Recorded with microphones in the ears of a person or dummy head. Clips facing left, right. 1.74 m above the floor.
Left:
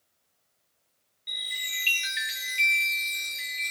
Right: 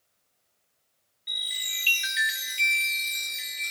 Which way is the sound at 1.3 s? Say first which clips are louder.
Left 2 dB; 5° right (ahead or behind).